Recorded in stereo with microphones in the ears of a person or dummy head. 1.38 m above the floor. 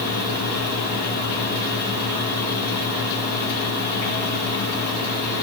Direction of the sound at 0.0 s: 55° right (ahead or behind).